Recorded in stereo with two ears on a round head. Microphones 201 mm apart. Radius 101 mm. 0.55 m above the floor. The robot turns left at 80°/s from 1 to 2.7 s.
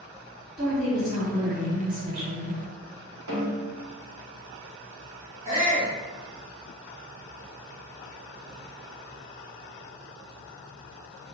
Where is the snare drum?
60° right (ahead or behind), 1.5 m.